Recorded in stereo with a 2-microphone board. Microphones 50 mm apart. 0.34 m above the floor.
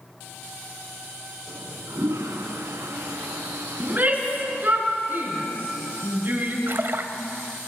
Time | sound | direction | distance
1.5 | a toilet flushing | 70° right (ahead or behind) | 3 m
3.8 | a shout | 30° right (ahead or behind) | 5.5 m
6.7 | a splash | 50° right (ahead or behind) | 1.3 m